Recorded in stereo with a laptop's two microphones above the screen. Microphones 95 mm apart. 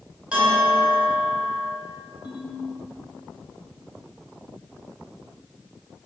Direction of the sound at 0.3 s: 15° right (ahead or behind).